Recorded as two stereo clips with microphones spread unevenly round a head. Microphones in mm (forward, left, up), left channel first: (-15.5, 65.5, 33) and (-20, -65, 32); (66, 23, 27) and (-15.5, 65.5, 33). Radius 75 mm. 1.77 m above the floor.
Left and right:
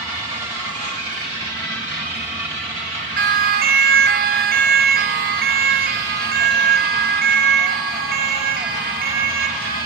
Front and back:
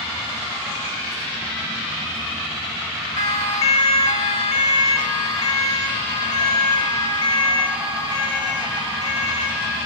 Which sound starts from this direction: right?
A siren, at 3.2 s.